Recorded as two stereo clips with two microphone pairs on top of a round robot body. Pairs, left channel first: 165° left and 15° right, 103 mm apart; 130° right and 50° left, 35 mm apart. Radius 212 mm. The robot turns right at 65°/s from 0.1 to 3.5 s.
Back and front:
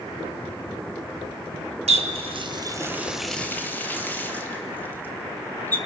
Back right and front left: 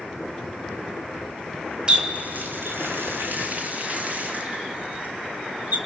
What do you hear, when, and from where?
1.9 s a running tap: 10° right, 1.8 m; by 5.8 s 95° left, 1.8 m